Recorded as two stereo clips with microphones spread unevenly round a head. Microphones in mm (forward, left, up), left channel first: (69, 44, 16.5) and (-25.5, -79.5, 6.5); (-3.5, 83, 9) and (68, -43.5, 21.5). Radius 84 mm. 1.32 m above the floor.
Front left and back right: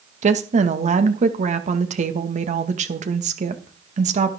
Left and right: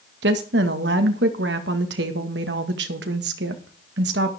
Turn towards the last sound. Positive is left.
turn(degrees=-85)